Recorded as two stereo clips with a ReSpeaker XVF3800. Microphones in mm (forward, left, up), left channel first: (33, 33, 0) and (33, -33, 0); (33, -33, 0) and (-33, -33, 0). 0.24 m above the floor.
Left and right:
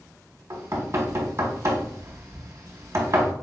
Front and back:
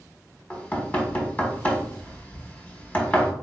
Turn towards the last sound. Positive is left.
turn(degrees=-60)